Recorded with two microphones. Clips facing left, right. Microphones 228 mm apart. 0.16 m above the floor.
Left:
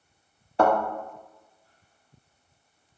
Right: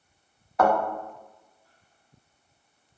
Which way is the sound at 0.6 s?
30° left (ahead or behind).